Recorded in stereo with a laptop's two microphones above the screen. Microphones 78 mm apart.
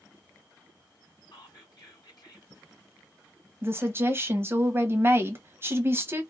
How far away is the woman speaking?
About 0.9 m.